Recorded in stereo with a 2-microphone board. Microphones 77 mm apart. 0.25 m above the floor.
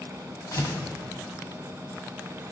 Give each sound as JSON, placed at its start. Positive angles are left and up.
{"t": 0.5, "sound": "tearing paper", "side_deg": 45, "distance_m": 1.5}